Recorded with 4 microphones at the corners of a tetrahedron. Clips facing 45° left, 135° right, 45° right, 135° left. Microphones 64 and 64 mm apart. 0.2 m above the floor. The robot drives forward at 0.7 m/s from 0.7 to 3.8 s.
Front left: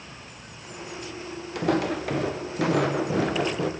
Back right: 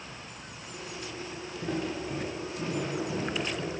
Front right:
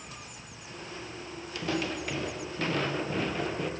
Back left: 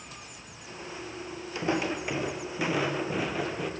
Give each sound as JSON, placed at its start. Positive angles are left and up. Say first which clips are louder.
{"t": 1.6, "sound": "footsteps", "louder": "front left 9 dB, back left 3 dB", "azimuth_deg": 70, "distance_m": 1.3}